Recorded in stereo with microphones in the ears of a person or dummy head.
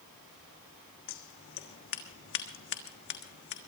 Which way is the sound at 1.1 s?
60° left (ahead or behind).